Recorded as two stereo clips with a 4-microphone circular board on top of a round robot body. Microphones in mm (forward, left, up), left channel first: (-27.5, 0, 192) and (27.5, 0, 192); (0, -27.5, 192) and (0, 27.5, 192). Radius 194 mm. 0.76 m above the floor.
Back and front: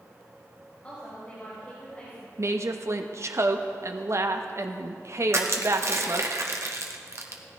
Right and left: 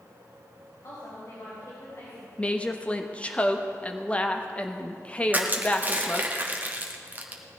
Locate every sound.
0.8 s a woman speaking: 115° right, 4.5 m
2.4 s a woman speaking: 25° right, 1.3 m
5.3 s crushing: 30° left, 1.7 m